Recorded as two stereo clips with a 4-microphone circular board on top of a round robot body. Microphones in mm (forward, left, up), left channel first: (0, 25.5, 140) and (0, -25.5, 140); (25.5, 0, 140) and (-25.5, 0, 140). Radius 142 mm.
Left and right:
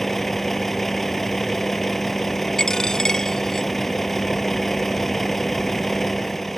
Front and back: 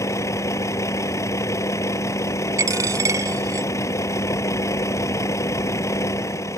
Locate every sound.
0.0 s a vehicle: 5° left
2.6 s a dropped coin: 170° left